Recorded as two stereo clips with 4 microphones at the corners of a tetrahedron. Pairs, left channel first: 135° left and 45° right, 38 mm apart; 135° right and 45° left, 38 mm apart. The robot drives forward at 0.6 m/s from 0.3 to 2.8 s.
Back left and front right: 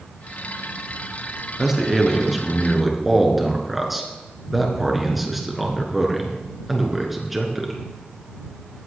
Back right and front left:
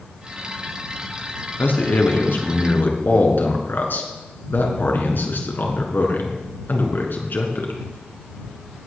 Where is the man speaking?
120° right, 3 m; by 7.8 s 130° right, 3.5 m.